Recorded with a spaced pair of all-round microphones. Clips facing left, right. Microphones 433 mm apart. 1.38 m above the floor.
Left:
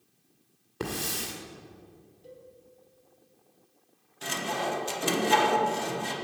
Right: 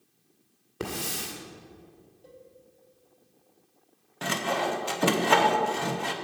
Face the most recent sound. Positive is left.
turn(degrees=-70)  # may be behind; listen again after turning